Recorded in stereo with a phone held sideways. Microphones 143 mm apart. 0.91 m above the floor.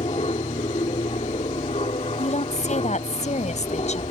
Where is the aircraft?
45° left (ahead or behind).